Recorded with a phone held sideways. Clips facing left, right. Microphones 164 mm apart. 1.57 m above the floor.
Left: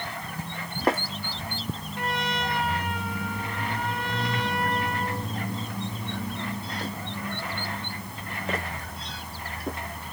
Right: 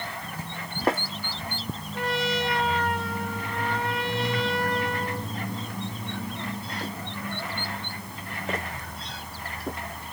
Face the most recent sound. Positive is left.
turn(degrees=-85)